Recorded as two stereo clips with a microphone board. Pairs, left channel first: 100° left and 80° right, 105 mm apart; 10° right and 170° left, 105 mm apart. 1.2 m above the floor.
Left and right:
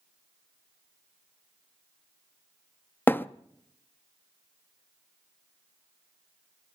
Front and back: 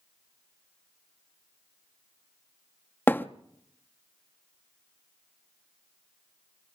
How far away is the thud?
About 0.6 m.